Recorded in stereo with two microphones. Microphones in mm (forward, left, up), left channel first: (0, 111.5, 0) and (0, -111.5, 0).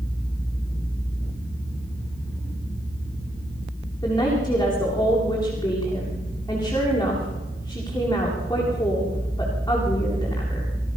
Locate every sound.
4.0 s a woman speaking: 15° left (ahead or behind), 8.5 m